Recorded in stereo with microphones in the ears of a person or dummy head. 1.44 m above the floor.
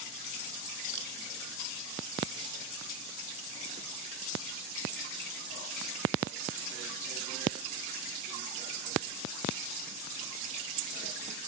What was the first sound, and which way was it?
A camera shutter, 60° right (ahead or behind).